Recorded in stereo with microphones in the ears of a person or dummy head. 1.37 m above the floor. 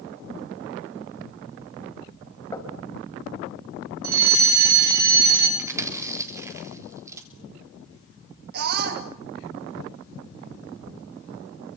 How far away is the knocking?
About 4.5 m.